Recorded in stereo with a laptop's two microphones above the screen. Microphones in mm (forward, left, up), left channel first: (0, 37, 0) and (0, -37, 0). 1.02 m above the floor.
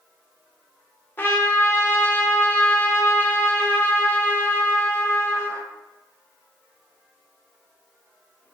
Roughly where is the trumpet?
Left.